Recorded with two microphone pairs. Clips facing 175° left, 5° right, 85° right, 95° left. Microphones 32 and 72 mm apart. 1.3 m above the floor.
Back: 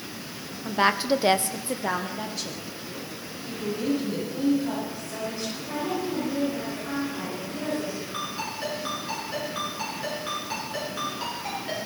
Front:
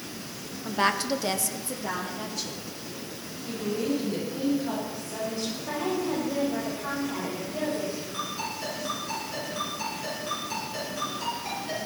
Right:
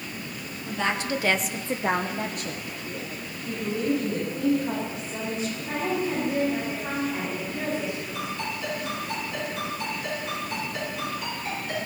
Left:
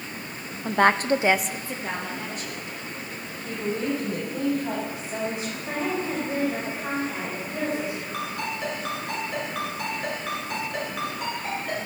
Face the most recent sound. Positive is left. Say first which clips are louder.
# back 1 dB, left 1 dB
turn(degrees=120)